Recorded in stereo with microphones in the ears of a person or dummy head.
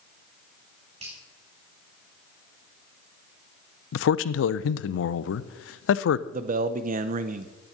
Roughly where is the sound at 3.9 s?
Left.